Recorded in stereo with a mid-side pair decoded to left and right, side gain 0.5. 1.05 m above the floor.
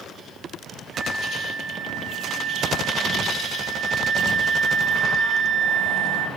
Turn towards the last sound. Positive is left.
turn(degrees=-20)